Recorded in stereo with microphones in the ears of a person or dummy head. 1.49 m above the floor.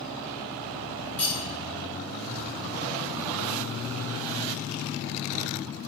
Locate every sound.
1.2 s cutlery clinking: 15° left (ahead or behind), 1.6 m